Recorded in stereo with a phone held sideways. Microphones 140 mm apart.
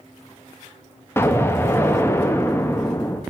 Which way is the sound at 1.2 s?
20° left (ahead or behind).